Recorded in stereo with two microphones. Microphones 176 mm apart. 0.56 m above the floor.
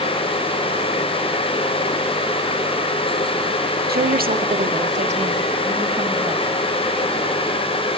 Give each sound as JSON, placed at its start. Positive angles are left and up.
{"t": 3.9, "sound": "a woman speaking", "side_deg": -65, "distance_m": 1.3}